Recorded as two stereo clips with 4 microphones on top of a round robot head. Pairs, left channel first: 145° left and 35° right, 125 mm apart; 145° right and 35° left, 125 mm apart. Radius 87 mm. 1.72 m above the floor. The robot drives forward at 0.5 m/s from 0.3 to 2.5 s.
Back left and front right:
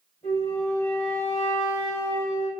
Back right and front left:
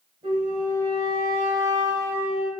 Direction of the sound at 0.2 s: 90° left.